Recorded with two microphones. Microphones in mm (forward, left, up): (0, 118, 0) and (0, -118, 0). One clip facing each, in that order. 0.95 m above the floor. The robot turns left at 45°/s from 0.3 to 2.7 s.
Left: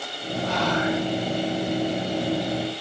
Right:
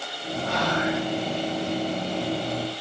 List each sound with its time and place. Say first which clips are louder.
0.4 s whispering: left 2 dB; 65° right (ahead or behind), 1.4 m; by 1.0 s 45° right (ahead or behind), 1.4 m